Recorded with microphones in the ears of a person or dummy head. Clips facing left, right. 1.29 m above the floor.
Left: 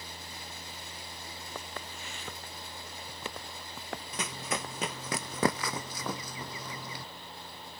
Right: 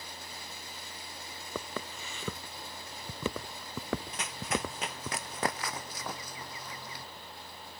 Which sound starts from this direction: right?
Footsteps, at 1.6 s.